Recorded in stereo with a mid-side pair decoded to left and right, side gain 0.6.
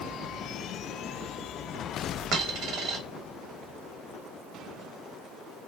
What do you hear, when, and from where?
2.3 s a dropped coin: 60° right, 1.2 m